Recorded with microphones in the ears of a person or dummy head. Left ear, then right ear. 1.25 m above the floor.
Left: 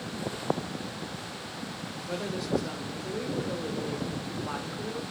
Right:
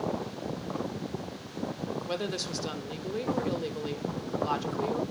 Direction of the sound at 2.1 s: 85° right.